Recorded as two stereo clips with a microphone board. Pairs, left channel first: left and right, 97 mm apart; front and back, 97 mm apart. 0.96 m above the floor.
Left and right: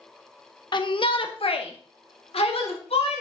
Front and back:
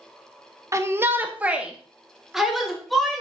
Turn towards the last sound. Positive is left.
turn(degrees=90)